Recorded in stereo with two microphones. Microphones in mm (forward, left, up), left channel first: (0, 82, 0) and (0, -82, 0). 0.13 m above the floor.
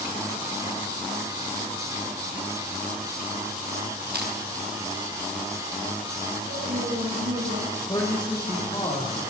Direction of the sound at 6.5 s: 70° right (ahead or behind).